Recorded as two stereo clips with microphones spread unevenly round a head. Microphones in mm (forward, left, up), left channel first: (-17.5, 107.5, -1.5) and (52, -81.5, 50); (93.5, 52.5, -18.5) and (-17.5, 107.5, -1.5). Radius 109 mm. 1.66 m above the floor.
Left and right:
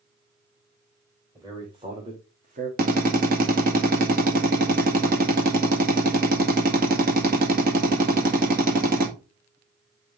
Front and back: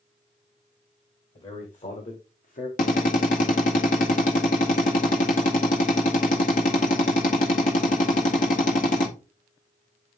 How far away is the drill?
About 1.8 m.